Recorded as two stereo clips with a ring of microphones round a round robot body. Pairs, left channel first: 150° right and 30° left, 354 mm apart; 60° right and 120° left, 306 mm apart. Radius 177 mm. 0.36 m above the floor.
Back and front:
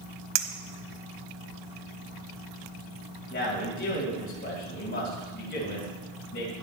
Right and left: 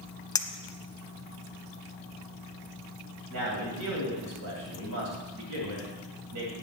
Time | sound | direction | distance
0.3 | a clink | 20° left | 1.2 m
3.3 | a man speaking | 155° left | 2.5 m